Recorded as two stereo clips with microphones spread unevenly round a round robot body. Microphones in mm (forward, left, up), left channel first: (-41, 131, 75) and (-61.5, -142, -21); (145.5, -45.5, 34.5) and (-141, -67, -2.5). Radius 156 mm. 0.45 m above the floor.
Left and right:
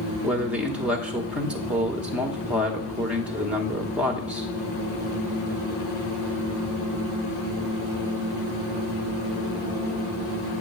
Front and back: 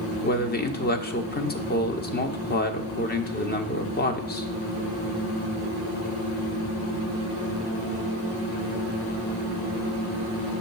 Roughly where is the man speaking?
Ahead right.